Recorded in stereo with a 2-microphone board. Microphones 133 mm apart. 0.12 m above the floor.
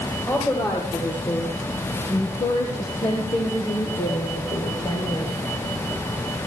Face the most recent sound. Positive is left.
turn(degrees=35)  # may be behind; listen again after turning